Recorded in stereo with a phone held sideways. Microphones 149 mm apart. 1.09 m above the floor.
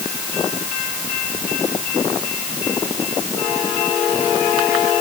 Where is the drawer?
I don't hear a drawer.